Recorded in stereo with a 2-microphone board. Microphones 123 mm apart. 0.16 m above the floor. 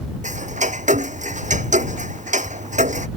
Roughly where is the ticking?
Right.